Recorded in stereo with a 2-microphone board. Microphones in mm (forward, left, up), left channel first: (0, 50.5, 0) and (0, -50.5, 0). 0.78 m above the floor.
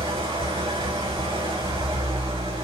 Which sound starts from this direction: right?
An engine running, at 0.0 s.